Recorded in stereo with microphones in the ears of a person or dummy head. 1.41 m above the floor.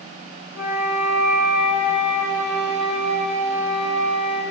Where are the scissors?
No scissors in this recording.